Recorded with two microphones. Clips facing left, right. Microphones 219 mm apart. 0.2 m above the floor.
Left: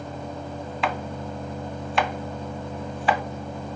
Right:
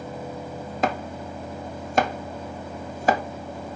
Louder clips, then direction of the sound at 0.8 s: Right 3 dB; 45° right (ahead or behind).